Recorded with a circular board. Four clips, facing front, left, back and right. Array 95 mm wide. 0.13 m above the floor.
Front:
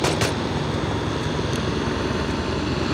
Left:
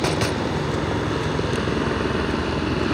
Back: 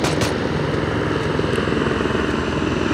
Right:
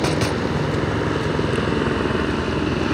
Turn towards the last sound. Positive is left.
turn(degrees=-165)